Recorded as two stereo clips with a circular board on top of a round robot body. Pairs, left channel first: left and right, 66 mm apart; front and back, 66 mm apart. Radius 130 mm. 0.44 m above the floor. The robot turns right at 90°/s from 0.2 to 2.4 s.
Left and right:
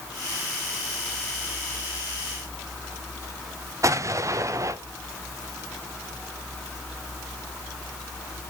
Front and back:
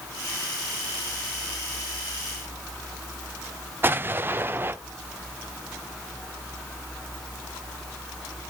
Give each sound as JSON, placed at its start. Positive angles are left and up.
{"t": 3.8, "sound": "an explosion", "azimuth_deg": -125, "distance_m": 0.7}